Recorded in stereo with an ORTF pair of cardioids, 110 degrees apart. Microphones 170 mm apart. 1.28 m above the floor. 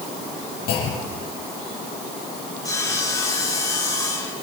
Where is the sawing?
20° left, 6.5 m.